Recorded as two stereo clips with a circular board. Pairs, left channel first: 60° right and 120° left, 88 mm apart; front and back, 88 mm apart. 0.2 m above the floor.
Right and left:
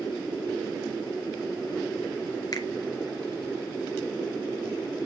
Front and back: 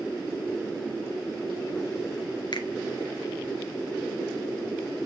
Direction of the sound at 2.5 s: 20° right.